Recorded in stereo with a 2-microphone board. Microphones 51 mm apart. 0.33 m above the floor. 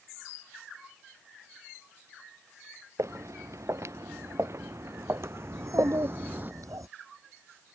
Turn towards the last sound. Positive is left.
turn(degrees=-85)